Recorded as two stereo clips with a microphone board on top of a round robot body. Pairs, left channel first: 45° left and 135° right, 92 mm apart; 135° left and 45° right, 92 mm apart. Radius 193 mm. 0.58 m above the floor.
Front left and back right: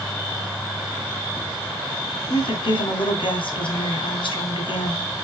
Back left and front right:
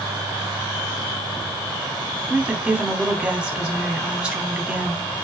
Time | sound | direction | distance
2.3 | a woman speaking | 35° left | 2.5 m